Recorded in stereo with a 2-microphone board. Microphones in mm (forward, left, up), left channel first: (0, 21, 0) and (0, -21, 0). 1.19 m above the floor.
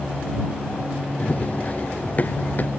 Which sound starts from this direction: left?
Running footsteps, at 1.2 s.